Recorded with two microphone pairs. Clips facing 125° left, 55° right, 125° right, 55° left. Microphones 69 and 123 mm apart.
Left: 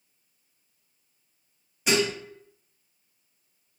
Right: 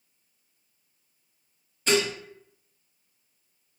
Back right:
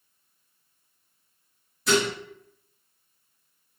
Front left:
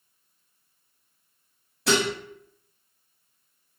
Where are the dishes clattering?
45° left, 1.7 m.